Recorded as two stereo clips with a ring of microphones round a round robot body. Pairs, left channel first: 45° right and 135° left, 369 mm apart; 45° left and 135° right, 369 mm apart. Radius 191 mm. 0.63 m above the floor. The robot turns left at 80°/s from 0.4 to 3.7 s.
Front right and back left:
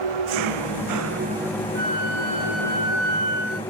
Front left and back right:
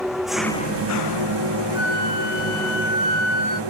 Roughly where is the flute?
Left.